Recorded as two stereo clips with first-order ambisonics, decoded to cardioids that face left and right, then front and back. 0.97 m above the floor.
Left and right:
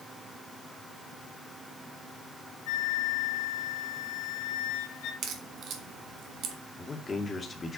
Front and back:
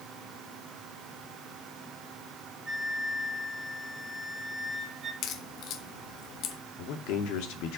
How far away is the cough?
No cough in this recording.